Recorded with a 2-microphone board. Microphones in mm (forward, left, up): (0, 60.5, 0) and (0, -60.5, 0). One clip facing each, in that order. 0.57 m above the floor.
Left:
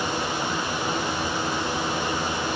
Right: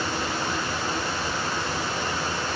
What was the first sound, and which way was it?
Only background noise.